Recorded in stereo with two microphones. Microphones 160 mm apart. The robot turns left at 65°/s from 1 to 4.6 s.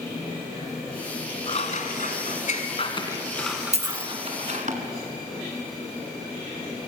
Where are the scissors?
35° left (ahead or behind), 2.5 m; by 4.7 s 50° right (ahead or behind), 2.5 m.